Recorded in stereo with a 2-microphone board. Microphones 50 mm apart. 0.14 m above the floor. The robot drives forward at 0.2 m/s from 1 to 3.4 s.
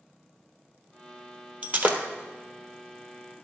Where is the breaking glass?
30° right (ahead or behind), 1.0 m; by 2.0 s 35° right (ahead or behind), 0.9 m.